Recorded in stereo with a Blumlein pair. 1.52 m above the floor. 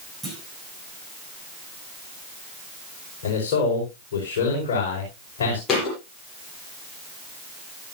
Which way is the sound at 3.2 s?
55° left.